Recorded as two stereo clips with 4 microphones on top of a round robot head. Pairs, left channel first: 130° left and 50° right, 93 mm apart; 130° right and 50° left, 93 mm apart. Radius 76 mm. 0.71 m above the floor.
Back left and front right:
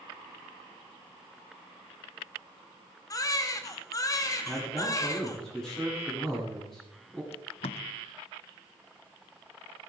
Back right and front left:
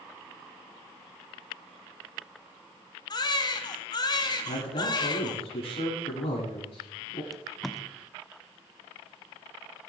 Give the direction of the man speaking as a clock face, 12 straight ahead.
5 o'clock.